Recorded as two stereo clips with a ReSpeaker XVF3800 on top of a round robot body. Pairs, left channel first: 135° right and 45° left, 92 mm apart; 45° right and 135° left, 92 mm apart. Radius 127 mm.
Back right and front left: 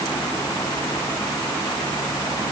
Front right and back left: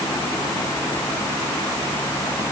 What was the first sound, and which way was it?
Only background noise.